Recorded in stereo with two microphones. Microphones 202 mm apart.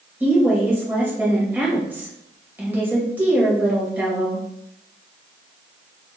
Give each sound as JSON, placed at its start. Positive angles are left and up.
{"t": 0.2, "sound": "a woman speaking", "side_deg": -10, "distance_m": 2.0}